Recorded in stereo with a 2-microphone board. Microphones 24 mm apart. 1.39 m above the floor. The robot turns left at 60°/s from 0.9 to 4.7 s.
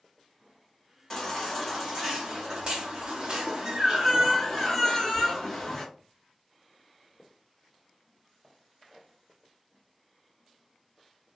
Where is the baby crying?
25° left, 1.1 m; by 5.8 s 165° left, 1.1 m.